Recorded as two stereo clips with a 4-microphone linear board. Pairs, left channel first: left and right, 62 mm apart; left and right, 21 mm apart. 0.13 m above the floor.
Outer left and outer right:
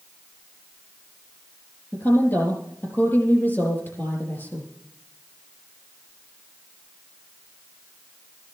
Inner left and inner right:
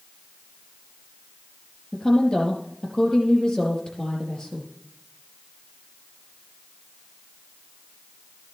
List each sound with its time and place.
1.9 s a woman speaking: 35° left (ahead or behind), 4.5 m